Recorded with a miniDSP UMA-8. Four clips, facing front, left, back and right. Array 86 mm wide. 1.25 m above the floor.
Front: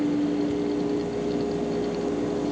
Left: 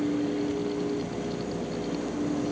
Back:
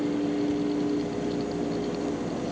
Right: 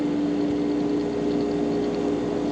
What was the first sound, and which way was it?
Only background noise.